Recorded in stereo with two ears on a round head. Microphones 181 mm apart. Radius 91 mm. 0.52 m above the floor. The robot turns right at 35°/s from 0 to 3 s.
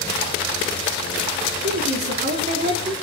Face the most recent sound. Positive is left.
turn(degrees=-20)